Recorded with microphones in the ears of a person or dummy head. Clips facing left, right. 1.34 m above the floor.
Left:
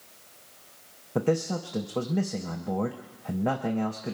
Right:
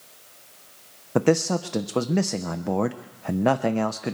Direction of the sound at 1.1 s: 80° right.